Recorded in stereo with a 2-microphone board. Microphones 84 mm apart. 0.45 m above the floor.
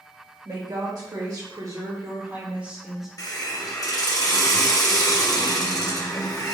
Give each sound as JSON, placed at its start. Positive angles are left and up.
{"t": 0.5, "sound": "a woman speaking", "side_deg": -55, "distance_m": 1.8}
{"t": 3.2, "sound": "a hiss", "side_deg": 45, "distance_m": 0.8}